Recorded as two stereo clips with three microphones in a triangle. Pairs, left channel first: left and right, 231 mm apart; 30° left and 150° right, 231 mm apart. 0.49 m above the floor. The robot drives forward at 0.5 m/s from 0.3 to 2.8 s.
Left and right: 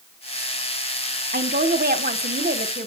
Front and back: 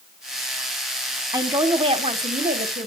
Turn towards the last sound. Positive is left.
turn(degrees=-120)